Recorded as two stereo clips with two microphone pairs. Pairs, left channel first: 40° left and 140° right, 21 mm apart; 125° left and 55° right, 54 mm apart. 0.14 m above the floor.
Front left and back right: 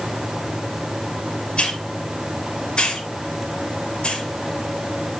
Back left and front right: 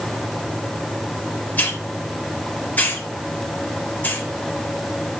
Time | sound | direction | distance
1.6 | a hiss | 70° left | 3.5 m